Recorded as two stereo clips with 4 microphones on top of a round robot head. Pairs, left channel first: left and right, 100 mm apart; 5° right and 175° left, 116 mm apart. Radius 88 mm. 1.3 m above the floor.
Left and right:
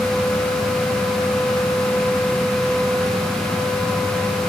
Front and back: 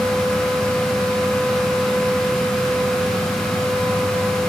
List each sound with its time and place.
Only background noise.